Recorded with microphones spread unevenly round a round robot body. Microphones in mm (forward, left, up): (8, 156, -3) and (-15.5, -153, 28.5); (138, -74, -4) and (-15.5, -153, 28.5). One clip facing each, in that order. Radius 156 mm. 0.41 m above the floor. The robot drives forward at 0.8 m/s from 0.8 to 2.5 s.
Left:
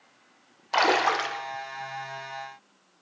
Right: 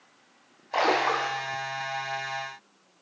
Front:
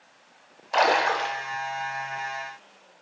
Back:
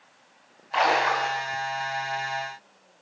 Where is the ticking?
No ticking in this recording.